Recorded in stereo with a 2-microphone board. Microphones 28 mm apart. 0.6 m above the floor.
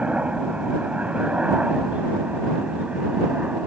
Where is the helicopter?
45° right (ahead or behind); by 3.7 s 50° right (ahead or behind).